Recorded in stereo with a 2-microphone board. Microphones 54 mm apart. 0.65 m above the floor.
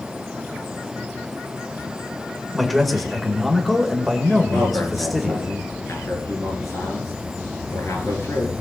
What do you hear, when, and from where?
2.5 s a man speaking: 5° left (ahead or behind), 2 m
4.5 s a man speaking: 65° left (ahead or behind), 7.5 m